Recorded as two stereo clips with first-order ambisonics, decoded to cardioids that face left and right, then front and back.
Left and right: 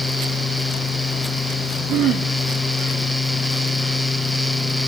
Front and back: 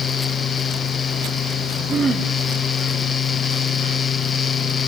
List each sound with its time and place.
1.9 s throat clearing: 120° right, 2.0 m